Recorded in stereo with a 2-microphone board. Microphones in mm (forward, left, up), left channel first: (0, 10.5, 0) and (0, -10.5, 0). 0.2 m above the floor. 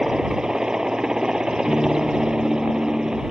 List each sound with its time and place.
0.0 s a helicopter: 35° right (ahead or behind)
1.7 s a guitar: 75° left (ahead or behind)